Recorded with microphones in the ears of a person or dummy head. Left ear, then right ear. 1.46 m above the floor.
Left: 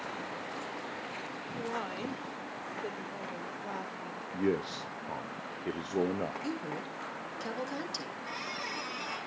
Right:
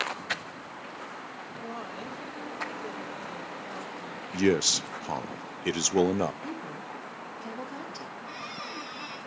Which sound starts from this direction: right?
A man speaking, at 4.3 s.